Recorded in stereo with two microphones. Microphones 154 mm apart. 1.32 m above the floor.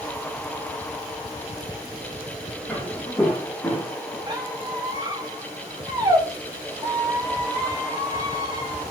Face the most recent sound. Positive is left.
turn(degrees=-30)  # may be behind; listen again after turning